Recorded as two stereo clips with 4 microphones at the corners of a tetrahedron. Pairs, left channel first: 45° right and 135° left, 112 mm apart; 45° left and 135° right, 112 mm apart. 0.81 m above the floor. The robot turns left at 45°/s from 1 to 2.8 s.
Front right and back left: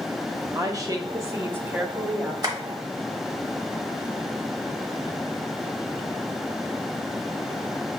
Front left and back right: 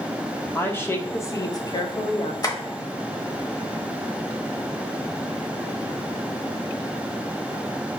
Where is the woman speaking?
105° left, 0.8 m; by 2.3 s 45° left, 0.8 m.